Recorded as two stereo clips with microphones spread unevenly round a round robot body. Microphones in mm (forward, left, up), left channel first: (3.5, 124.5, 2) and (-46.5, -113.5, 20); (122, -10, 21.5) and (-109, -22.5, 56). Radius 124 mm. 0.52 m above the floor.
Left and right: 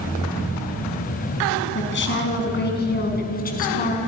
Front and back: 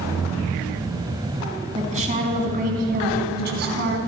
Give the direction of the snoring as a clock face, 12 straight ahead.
No snoring in this recording.